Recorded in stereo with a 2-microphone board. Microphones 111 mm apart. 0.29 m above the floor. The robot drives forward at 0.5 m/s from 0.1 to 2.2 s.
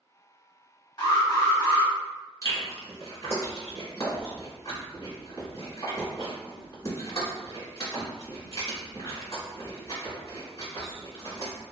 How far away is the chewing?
About 1.6 m.